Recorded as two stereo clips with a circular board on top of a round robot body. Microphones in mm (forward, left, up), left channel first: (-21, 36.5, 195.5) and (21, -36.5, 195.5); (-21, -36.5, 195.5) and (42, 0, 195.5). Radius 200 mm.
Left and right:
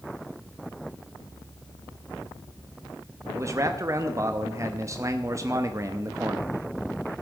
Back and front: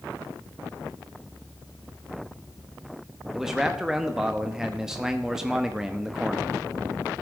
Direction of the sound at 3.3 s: 50° right.